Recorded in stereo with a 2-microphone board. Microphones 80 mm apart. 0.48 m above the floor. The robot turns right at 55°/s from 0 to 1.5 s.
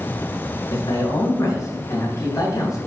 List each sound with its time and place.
0.7 s a man speaking: 85° left, 3 m; by 2.8 s 130° left, 3 m